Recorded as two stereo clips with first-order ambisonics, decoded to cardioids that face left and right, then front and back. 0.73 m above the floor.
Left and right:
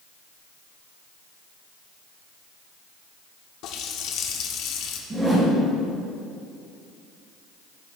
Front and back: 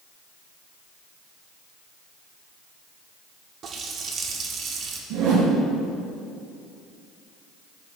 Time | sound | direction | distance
3.6 | a running tap | 125° left | 1.0 m
5.1 | a whoosh | 165° right | 2.5 m